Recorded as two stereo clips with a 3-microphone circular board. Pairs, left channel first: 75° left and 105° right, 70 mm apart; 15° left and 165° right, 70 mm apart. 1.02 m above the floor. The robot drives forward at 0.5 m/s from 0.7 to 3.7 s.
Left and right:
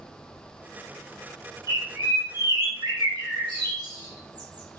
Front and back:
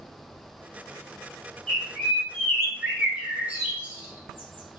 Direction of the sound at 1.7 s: 65° right.